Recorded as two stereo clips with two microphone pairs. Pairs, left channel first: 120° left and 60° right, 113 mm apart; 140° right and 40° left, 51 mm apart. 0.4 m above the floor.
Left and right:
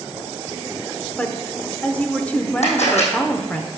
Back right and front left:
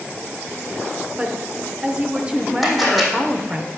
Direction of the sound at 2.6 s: 130° left.